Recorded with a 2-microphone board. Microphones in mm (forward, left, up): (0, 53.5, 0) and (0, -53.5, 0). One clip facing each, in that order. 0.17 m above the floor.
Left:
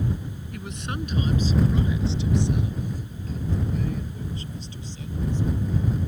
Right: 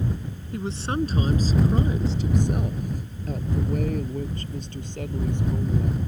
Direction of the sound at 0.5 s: 30° right (ahead or behind).